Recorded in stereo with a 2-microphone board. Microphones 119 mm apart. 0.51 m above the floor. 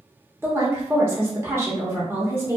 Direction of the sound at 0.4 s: 20° right (ahead or behind).